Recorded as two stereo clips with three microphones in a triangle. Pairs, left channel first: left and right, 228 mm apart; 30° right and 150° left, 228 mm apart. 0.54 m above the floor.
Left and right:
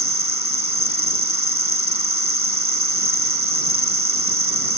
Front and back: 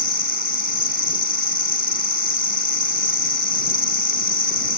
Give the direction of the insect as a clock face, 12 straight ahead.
8 o'clock.